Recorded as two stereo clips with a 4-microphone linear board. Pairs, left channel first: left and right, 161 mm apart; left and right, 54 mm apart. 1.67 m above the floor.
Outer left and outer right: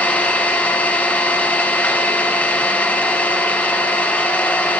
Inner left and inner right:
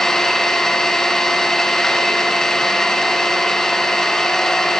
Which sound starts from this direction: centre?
An engine running, at 0.0 s.